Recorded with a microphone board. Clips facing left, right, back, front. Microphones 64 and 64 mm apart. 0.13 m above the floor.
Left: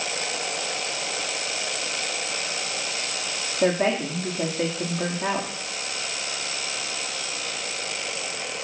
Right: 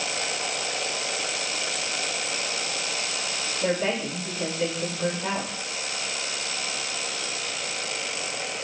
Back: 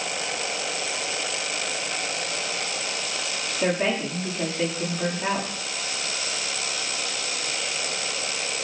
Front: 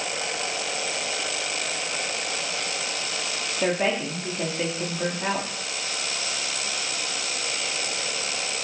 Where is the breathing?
I don't hear breathing.